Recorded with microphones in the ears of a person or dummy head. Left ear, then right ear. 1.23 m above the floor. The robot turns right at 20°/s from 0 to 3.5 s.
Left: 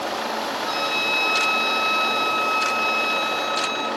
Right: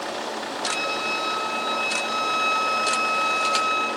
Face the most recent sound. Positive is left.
turn(degrees=-135)